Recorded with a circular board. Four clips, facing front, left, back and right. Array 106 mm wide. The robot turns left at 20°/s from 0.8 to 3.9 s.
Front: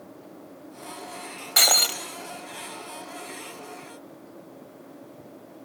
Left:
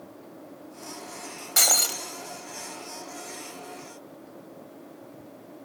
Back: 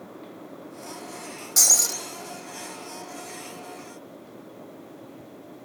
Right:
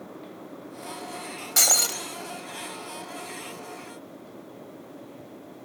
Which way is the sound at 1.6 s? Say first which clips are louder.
Even, front 8 dB; straight ahead.